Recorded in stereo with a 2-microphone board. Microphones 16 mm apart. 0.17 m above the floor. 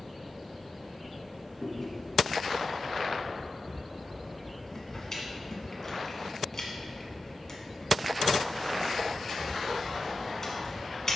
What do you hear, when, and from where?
1.6 s chewing: 30° left (ahead or behind), 1.2 m